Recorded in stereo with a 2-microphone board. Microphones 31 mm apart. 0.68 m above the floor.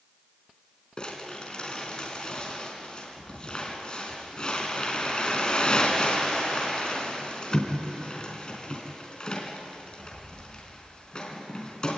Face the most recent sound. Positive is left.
turn(degrees=25)  # may be behind; listen again after turning